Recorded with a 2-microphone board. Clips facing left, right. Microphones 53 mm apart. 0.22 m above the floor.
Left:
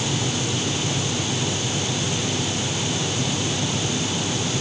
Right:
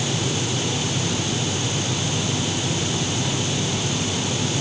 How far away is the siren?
I don't hear a siren.